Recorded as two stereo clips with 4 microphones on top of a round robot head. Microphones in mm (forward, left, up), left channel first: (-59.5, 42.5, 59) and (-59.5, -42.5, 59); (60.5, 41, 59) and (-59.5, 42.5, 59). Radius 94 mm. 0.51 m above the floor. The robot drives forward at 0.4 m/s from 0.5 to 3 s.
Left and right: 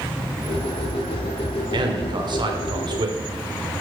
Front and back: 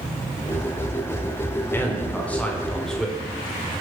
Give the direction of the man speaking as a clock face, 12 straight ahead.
2 o'clock.